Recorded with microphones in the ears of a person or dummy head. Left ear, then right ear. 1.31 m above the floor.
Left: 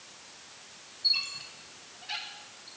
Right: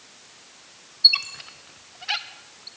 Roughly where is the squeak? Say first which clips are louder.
Right 10 dB; right.